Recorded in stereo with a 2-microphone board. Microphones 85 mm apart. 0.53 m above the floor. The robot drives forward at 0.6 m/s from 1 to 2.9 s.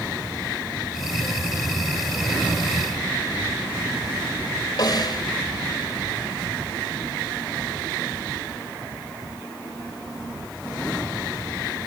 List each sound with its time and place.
4.8 s a snare drum: 50° left (ahead or behind), 0.9 m